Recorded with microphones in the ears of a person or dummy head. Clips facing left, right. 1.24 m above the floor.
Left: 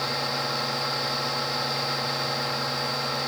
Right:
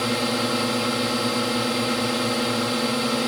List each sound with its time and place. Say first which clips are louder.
0.0 s a drone: right 7 dB; 45° right (ahead or behind)